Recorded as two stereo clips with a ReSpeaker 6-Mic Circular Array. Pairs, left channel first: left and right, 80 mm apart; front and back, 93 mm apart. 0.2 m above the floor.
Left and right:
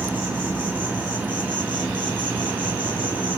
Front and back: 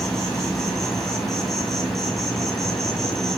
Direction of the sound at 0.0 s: 80° right.